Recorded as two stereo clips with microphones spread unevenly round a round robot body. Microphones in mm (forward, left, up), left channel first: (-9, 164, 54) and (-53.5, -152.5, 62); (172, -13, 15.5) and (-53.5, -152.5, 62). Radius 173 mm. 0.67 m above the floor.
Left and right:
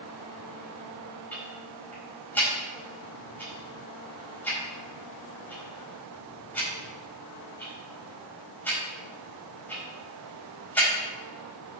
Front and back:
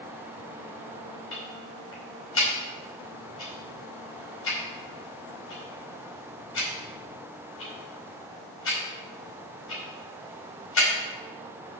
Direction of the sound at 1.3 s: 5° right.